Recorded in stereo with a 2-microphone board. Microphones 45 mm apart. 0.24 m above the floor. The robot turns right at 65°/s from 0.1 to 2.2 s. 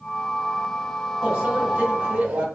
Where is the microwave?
155° right, 1.4 m; by 2.5 s 90° right, 1.4 m.